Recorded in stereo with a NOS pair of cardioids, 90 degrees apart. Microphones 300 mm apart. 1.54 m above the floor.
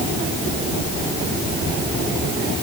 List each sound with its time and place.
Only background noise.